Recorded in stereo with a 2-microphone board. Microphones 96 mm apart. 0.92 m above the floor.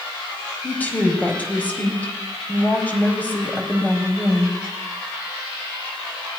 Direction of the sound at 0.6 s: 15° left (ahead or behind).